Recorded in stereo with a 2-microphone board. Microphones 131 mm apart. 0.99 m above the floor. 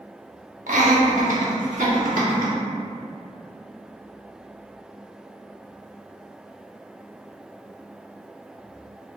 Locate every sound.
0.7 s laughter: 75° right (ahead or behind), 1.0 m; by 2.5 s 85° right, 1.9 m